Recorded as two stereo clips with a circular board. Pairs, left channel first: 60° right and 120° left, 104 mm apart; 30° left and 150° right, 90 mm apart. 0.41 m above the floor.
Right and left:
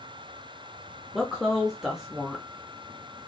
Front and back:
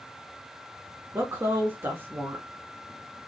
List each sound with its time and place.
1.1 s a woman speaking: 160° right, 1.1 m